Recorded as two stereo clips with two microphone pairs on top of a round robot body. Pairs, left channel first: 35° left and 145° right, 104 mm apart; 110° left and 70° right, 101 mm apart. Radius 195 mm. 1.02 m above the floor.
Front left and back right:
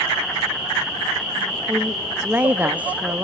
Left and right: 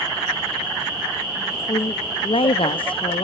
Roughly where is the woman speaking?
Behind left.